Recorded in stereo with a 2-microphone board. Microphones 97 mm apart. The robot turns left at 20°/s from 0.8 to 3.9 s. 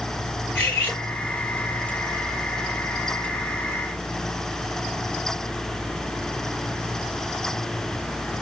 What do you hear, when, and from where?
0.6 s cutlery clinking: 20° left (ahead or behind), 2.5 m; by 1.0 s 25° left (ahead or behind), 2.5 m